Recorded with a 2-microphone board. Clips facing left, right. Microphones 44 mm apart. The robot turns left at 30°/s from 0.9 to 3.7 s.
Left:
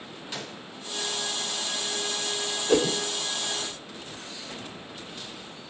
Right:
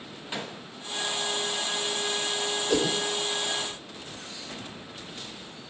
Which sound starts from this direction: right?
A gunshot, at 0.3 s.